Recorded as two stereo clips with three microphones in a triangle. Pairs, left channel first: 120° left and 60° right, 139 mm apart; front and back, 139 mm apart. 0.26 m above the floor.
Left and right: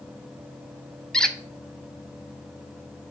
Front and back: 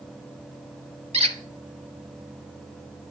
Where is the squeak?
155° right, 0.6 m.